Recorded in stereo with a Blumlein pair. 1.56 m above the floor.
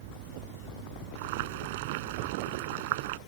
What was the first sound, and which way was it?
Boiling, 50° right.